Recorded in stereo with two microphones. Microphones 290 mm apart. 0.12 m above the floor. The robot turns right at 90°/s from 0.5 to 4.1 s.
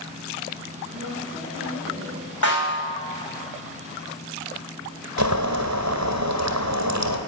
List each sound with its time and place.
0.9 s a woman speaking: 130° right, 5.5 m; by 2.3 s 5° right, 5.5 m
2.4 s a snare drum: 90° left, 5.5 m; by 2.9 s 135° left, 5.5 m
5.2 s boiling: 70° right (ahead or behind), 1.5 m